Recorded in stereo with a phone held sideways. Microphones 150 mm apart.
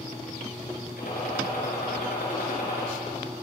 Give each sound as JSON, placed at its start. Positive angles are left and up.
{"t": 1.0, "sound": "a gunshot", "side_deg": 70, "distance_m": 6.0}